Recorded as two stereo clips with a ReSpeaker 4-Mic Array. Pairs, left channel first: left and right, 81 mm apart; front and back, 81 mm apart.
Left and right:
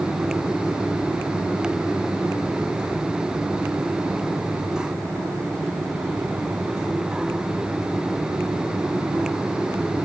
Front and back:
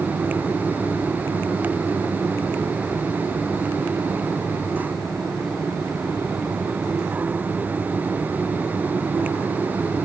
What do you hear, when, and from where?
Only background noise.